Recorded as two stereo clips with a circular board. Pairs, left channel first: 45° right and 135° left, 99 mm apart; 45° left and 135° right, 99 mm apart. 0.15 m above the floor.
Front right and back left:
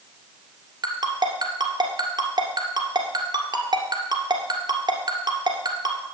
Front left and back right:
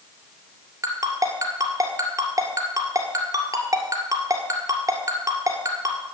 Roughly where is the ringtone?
Behind.